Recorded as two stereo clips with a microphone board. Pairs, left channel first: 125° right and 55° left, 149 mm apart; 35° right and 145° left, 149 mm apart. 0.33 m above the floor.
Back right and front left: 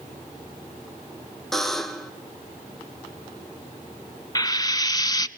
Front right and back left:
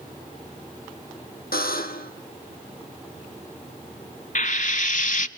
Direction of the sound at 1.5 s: 35° right.